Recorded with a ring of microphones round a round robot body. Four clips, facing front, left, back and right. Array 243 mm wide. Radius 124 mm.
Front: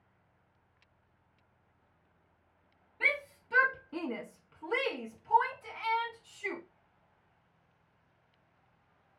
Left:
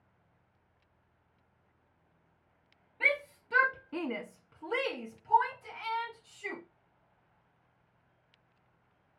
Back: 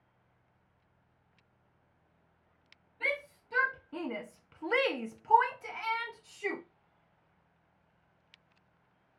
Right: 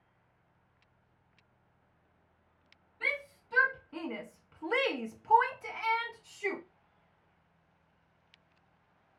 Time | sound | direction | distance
3.0 | a shout | 65° left | 1.0 m